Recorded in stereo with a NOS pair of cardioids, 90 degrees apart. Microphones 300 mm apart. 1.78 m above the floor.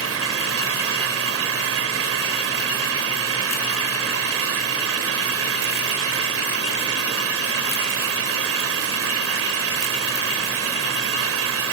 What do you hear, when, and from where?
0.0 s an engine running: 50° right